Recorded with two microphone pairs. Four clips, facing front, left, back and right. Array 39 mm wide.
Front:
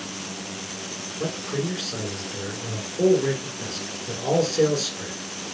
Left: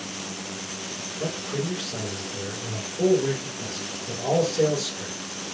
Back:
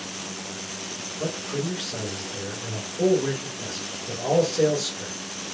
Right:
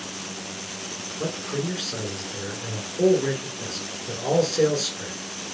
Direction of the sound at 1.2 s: 40° right.